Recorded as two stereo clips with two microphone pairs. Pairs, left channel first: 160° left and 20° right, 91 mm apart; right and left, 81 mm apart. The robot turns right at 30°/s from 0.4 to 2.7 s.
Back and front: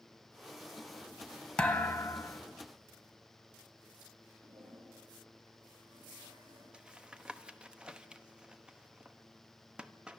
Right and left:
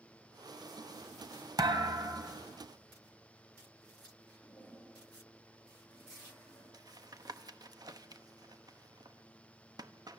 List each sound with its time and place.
1.6 s a thud: 85° left, 1.2 m; by 2.4 s 105° left, 1.2 m
4.4 s a toilet flushing: 15° right, 8 m
6.7 s tapping: 55° left, 0.9 m